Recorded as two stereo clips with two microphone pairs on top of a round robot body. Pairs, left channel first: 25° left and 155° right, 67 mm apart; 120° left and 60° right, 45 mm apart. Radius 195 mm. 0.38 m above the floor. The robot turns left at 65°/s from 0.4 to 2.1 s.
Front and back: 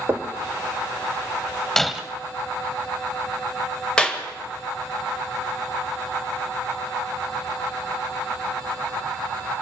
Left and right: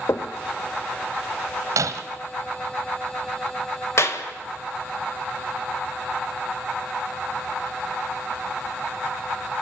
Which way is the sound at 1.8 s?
55° right.